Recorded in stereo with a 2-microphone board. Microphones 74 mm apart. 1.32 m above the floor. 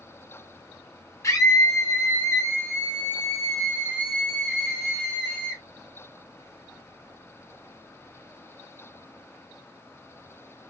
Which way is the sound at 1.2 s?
35° left (ahead or behind).